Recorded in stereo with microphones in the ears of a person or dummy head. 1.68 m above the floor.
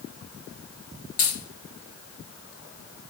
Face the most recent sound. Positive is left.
turn(degrees=40)  # may be behind; listen again after turning